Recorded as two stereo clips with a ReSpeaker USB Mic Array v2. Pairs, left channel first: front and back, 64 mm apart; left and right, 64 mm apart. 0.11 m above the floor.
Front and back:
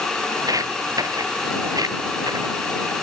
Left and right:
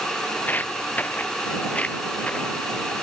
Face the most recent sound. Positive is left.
turn(degrees=165)